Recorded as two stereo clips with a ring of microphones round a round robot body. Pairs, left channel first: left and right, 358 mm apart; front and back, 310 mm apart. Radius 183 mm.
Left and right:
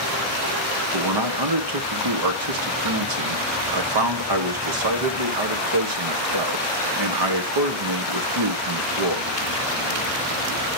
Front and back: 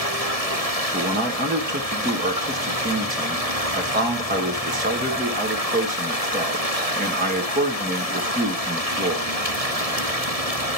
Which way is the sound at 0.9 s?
115° right.